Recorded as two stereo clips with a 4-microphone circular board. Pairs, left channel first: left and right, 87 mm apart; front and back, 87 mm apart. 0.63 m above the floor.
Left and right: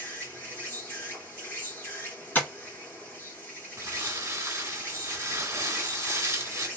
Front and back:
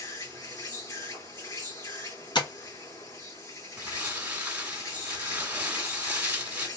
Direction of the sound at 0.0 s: 30° left.